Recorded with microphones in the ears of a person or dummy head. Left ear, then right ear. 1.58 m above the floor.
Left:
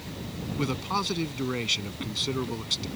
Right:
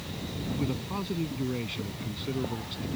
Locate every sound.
0.6 s a man speaking: 55° left (ahead or behind)